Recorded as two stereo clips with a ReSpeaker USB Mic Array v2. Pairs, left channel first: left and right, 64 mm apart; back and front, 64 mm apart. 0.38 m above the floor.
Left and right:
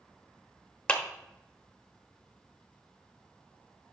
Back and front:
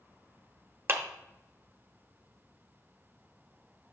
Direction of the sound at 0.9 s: 25° left.